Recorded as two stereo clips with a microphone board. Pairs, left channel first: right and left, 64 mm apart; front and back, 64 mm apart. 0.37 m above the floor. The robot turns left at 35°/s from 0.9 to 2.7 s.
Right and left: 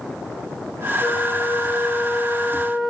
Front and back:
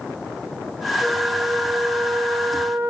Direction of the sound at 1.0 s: 125° right.